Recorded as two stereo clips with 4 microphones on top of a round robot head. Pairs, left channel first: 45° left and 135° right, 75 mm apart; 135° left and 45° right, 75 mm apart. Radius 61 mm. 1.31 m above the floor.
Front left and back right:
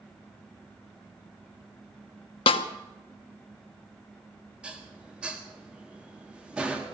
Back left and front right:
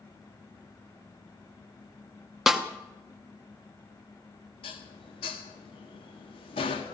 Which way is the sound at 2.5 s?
40° left.